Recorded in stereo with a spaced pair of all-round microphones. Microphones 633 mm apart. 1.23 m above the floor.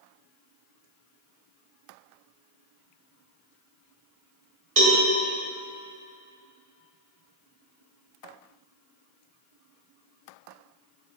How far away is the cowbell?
About 2.5 m.